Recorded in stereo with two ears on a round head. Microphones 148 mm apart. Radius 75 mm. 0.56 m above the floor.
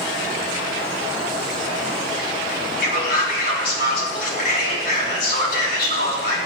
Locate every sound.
2.8 s a man speaking: 65° left (ahead or behind), 5.5 m